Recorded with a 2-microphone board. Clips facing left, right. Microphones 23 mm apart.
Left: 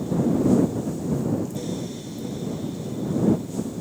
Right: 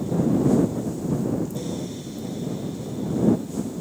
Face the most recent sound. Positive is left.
No sound to turn to.